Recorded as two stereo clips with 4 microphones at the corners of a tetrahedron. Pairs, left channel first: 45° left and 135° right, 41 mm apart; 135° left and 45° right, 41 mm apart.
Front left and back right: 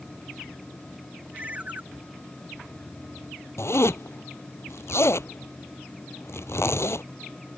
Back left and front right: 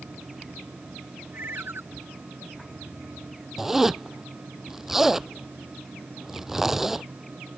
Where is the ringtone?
80° right.